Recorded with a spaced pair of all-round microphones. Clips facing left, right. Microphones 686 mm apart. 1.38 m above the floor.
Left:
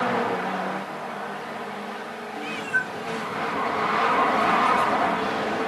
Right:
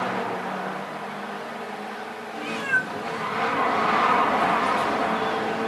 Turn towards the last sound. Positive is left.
turn(degrees=5)  # may be behind; listen again after turning